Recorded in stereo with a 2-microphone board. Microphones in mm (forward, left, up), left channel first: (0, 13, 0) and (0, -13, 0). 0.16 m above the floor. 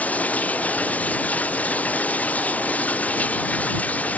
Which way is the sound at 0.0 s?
75° left (ahead or behind).